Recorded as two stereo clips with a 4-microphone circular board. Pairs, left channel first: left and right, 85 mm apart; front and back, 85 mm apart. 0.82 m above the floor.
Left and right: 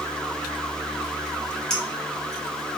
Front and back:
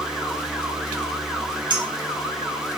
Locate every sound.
1.7 s a clink: 175° left, 1.6 m